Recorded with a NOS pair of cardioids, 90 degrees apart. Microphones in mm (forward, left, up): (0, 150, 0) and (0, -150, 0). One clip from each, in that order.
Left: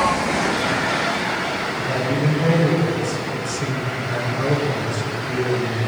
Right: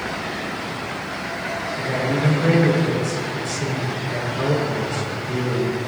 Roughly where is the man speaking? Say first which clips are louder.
Left 1 dB; ahead.